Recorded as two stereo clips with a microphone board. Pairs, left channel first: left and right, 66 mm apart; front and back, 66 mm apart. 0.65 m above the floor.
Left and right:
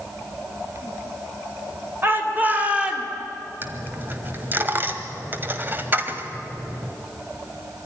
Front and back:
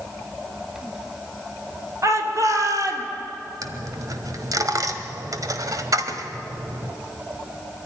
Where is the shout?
145° right, 3 m; by 3.1 s 165° right, 2 m.